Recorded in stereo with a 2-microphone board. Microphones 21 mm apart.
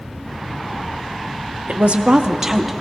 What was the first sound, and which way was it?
A woman speaking, 75° right (ahead or behind).